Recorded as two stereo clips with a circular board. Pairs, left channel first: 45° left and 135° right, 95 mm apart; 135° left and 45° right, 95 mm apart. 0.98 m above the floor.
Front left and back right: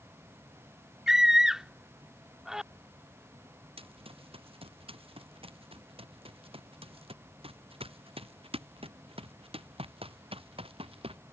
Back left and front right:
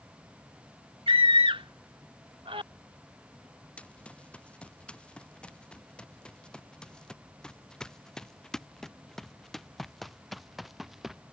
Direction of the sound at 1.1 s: 50° right.